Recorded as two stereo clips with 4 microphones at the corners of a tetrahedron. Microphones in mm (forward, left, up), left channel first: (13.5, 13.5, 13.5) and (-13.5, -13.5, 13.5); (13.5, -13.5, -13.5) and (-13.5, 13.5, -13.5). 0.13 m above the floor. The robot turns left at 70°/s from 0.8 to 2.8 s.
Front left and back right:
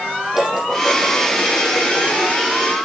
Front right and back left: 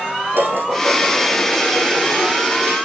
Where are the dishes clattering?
145° left, 4 m; by 2.4 s 35° left, 4 m.